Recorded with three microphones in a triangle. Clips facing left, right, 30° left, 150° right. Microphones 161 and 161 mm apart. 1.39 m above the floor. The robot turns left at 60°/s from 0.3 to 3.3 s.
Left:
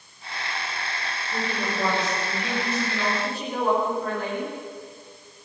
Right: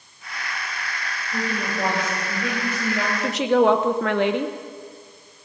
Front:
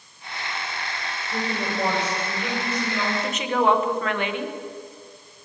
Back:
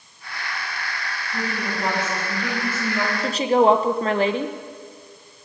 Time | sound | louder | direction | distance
1.3 | a woman speaking | right 2 dB, front 1 dB | 25° left | 8 m
3.2 | a woman speaking | right 12 dB, back 6 dB | 90° right | 1.0 m